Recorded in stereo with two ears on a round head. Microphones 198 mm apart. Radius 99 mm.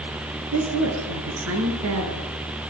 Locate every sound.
0.5 s a woman speaking: 65° right (ahead or behind), 6.5 m; by 2.3 s 70° right (ahead or behind), 7.5 m